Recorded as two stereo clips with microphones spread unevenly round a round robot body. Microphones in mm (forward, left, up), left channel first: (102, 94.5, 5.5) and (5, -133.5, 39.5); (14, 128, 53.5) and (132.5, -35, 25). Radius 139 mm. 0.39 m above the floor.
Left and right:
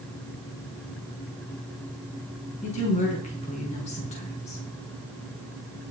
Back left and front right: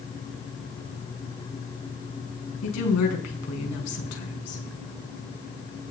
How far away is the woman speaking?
About 5.5 m.